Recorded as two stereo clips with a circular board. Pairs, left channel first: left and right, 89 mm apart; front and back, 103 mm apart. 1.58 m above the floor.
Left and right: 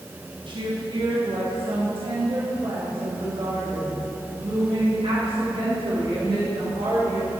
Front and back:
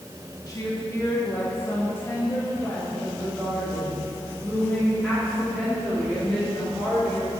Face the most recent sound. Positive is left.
turn(degrees=-85)